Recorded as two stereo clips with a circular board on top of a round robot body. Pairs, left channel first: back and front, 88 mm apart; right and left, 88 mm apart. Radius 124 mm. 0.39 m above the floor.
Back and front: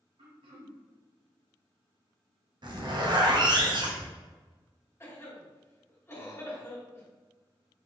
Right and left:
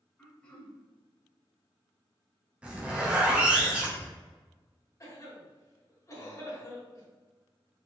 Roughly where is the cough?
Behind right.